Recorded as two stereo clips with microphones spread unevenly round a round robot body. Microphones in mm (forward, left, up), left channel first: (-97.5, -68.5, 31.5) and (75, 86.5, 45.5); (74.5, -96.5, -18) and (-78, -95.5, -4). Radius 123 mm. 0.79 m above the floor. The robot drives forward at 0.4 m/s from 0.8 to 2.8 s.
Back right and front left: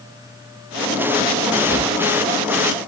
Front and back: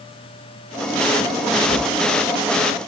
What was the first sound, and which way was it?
A drawer, 45° right.